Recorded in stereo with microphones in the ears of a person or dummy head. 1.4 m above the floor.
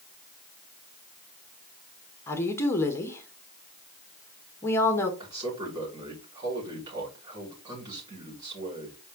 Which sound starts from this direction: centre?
A woman speaking, at 2.3 s.